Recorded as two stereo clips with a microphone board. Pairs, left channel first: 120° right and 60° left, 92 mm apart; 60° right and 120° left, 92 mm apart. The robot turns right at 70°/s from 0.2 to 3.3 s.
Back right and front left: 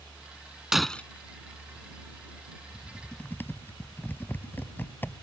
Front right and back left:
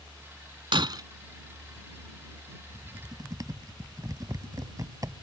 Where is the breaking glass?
145° left; by 1.0 s 165° left.